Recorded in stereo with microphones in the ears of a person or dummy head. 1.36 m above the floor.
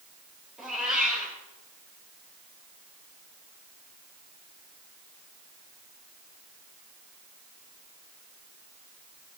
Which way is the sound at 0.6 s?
Centre (ahead or behind).